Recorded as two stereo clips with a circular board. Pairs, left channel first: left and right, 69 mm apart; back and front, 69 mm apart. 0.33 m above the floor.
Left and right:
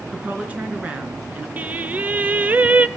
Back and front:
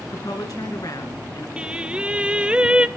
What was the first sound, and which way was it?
A woman speaking, 160° right.